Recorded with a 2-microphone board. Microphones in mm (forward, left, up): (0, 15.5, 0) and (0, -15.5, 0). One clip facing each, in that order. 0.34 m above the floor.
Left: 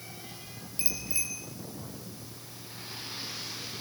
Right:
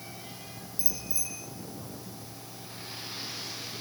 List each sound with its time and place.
0.8 s a bicycle bell: 55° left (ahead or behind), 5 m